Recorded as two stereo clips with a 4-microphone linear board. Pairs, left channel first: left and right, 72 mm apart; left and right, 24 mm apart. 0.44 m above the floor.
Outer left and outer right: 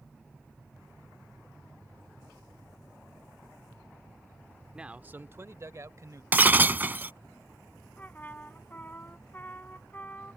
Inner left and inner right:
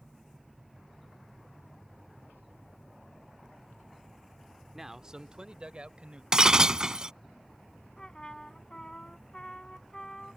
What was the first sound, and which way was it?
A man speaking, 10° right (ahead or behind).